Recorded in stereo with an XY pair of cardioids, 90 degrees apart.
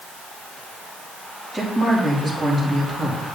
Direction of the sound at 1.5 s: 5° right.